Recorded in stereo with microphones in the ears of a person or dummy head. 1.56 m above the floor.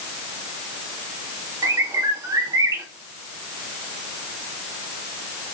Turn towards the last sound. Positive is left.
turn(degrees=-20)  # may be behind; listen again after turning